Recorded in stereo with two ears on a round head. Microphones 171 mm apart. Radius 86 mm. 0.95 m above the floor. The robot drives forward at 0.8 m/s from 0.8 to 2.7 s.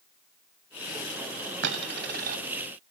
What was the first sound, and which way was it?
A dropped coin, 70° right (ahead or behind).